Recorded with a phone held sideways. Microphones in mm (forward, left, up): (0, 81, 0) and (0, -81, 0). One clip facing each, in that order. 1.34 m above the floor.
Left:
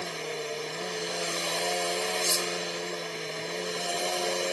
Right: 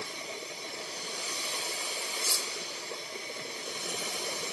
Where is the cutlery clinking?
75° left (ahead or behind).